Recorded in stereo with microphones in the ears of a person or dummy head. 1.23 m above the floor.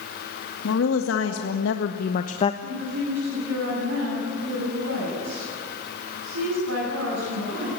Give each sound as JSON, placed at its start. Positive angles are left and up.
{"t": 0.6, "sound": "a woman speaking", "side_deg": 80, "distance_m": 2.0}
{"t": 2.6, "sound": "a woman speaking", "side_deg": -75, "distance_m": 8.5}